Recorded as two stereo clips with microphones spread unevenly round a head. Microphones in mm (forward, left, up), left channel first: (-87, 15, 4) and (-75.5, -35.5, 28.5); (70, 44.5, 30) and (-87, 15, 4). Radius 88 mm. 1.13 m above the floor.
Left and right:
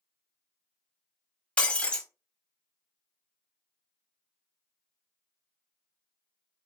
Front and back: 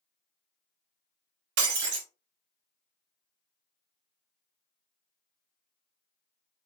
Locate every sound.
1.6 s breaking glass: 170° right, 1.3 m